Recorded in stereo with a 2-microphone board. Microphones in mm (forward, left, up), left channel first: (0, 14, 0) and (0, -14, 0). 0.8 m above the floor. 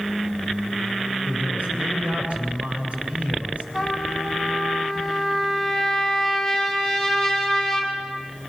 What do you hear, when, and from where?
1.2 s a man speaking: 50° right (ahead or behind), 8 m
3.7 s a trumpet: 10° right (ahead or behind), 7 m